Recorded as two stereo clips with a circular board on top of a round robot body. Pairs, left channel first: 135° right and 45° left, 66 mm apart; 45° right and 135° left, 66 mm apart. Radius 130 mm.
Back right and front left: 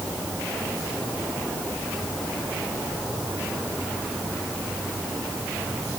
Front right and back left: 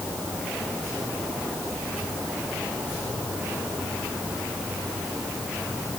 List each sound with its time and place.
Only background noise.